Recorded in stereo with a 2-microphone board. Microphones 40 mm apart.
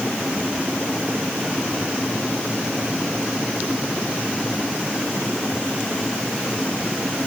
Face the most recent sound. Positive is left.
No sound to turn to.